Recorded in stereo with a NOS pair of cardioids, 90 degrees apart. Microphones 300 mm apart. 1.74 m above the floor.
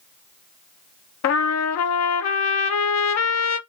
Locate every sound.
1.2 s a trumpet: 60° left, 0.9 m